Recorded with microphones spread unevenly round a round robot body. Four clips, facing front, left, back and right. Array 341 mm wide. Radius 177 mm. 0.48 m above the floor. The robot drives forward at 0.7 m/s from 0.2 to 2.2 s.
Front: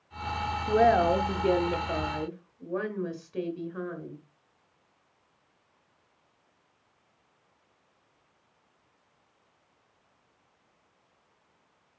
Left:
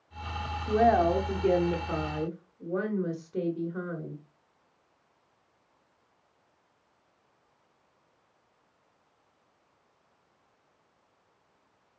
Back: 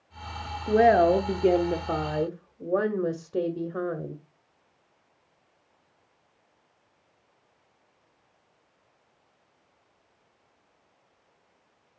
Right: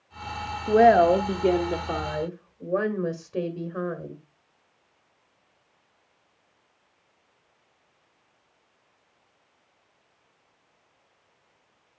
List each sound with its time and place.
0.7 s a woman speaking: 115° right, 1.0 m; by 4.2 s 165° right, 1.6 m